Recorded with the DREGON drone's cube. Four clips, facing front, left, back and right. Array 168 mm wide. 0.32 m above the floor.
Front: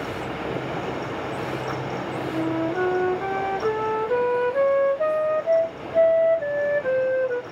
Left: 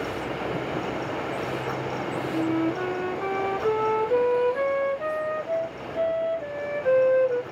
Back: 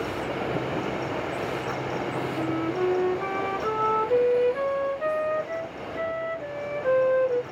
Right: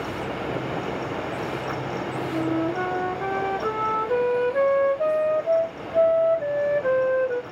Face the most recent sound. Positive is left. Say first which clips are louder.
# even, front 5 dB
turn(degrees=-45)